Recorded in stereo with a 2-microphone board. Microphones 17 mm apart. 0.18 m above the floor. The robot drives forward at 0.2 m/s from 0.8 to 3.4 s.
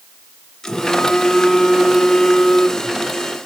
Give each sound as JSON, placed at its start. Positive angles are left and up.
{"t": 0.6, "sound": "a phone buzzing", "side_deg": 40, "distance_m": 1.7}